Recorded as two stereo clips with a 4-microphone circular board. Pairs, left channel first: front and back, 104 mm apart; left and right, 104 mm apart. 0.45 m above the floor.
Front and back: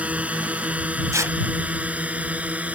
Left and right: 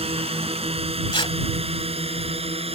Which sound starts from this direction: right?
A drone, at 0.0 s.